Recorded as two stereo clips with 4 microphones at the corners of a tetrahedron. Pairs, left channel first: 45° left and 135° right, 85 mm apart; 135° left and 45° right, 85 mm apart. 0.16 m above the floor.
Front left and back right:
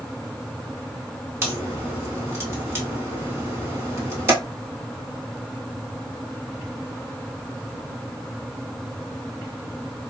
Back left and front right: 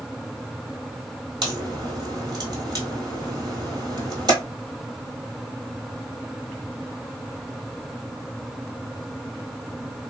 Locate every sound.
1.4 s a crack: 75° right, 1.2 m